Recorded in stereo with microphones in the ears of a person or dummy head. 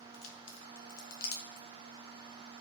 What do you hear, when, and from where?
0.1 s a crack: 75° left (ahead or behind), 1.1 m